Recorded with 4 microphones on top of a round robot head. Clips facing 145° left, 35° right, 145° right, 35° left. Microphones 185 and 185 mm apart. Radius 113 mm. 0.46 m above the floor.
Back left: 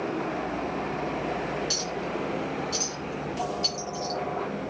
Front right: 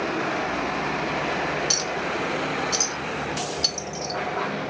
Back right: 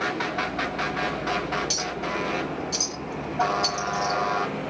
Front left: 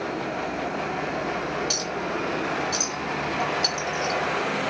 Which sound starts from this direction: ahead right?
A clink, at 1.7 s.